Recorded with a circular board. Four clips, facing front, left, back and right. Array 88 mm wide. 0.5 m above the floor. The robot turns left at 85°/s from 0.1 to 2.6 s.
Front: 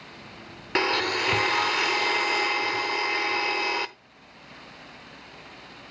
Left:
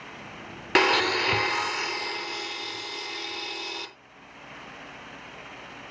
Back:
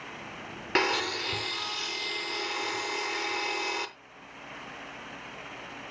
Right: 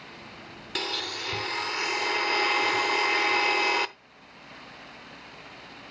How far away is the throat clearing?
I don't hear throat clearing.